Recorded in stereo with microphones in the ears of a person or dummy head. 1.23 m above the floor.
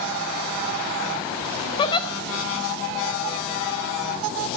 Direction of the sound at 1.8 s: 25° left (ahead or behind).